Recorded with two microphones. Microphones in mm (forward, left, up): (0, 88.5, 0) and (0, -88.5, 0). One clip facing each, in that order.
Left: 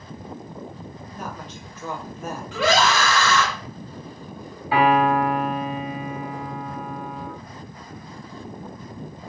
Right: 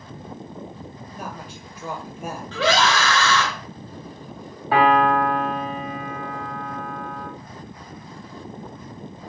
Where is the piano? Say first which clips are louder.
Right 1 dB; 50° right (ahead or behind), 2 m.